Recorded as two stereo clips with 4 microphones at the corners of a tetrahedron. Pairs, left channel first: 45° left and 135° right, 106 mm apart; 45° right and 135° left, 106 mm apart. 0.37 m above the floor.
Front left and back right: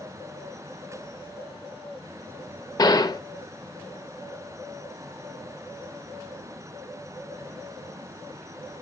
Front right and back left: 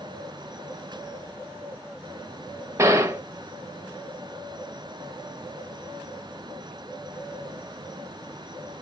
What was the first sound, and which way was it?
A gunshot, 85° left.